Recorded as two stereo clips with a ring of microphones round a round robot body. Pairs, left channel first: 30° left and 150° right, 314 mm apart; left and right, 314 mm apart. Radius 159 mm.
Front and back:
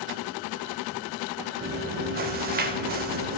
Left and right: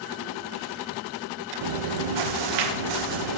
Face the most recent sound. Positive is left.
turn(degrees=-90)